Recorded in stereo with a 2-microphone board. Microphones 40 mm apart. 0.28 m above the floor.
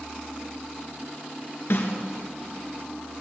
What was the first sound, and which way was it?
A snare drum, 80° left.